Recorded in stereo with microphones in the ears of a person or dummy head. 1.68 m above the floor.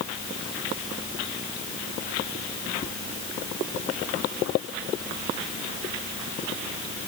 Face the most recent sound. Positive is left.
No sound to turn to.